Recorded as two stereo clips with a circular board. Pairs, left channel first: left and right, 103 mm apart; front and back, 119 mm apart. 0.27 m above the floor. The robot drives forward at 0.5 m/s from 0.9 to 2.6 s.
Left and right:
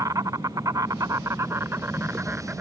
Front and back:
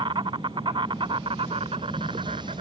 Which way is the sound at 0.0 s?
140° right.